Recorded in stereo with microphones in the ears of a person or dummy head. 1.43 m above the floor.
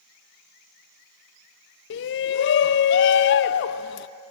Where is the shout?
60° left (ahead or behind), 0.5 m.